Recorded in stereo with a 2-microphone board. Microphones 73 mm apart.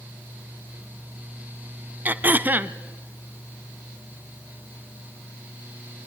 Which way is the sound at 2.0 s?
25° right (ahead or behind).